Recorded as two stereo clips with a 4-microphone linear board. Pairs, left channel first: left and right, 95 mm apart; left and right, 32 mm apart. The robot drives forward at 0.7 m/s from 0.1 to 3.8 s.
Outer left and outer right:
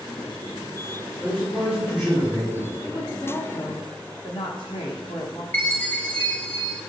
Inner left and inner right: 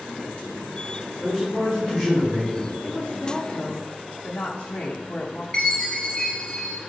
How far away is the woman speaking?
About 1.2 m.